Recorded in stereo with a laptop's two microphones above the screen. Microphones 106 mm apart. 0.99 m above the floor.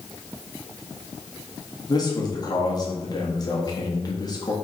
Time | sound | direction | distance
1.9 | a man speaking | 40° left (ahead or behind) | 1.6 m